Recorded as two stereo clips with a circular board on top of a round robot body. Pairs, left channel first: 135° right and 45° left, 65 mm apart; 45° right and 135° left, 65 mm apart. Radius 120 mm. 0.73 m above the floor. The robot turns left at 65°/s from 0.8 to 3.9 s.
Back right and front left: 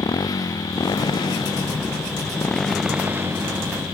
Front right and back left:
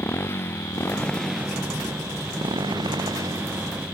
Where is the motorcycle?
105° right; by 3.9 s 60° left.